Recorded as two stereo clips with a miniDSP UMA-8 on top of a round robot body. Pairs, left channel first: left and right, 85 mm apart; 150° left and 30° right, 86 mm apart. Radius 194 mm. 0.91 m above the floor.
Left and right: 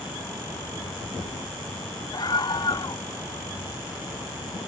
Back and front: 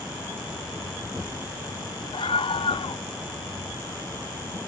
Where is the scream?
130° left.